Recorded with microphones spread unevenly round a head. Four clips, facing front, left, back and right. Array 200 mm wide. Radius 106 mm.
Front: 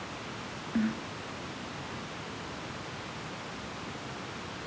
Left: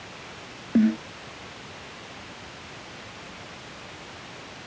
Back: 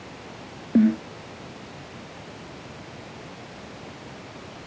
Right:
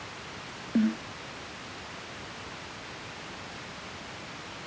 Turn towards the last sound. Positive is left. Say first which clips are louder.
# left 5 dB, back 12 dB
turn(degrees=160)